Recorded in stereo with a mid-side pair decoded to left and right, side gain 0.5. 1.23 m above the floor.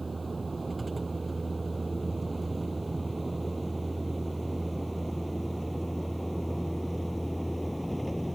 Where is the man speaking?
I don't hear a man speaking.